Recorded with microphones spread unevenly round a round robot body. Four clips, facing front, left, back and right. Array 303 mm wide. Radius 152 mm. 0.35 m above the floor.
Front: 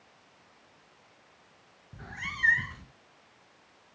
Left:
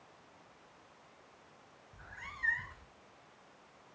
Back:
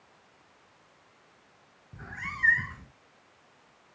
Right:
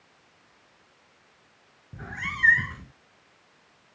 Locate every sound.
1.9 s a cat meowing: 95° right